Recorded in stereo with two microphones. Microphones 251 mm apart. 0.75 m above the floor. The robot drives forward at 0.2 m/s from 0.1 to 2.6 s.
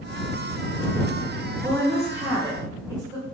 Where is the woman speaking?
15° right (ahead or behind), 0.6 m; by 3.2 s 10° right (ahead or behind), 0.7 m.